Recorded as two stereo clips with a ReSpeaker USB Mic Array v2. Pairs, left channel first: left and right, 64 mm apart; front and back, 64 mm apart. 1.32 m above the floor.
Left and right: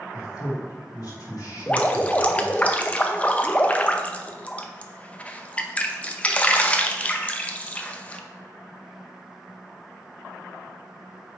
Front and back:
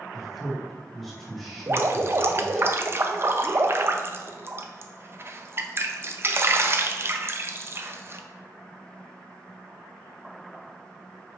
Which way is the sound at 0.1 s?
80° left.